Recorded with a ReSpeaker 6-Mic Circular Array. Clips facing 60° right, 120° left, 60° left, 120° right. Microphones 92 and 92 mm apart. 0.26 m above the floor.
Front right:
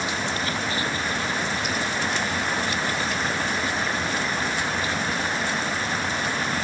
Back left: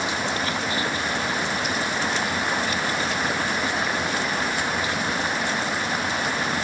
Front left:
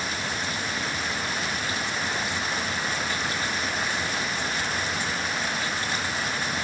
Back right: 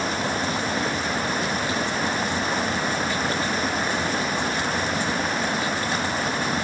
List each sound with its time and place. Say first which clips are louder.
0.0 s running water: back left 1 dB, back right 6 dB; 165° right